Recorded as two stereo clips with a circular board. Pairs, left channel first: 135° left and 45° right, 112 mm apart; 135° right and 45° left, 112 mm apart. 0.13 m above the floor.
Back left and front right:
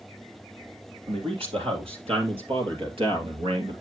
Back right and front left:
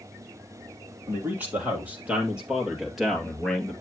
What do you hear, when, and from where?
1.1 s a man speaking: 25° right, 4 m; by 3.8 s 55° right, 2 m